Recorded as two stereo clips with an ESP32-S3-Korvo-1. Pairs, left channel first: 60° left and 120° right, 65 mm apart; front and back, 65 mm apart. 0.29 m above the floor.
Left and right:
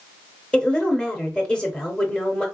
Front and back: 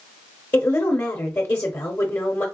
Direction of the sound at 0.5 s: 5° right.